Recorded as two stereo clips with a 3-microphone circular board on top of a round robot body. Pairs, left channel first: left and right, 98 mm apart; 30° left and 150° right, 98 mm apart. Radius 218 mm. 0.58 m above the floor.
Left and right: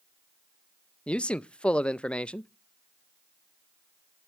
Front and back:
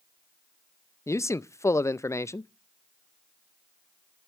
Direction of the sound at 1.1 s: 20° left.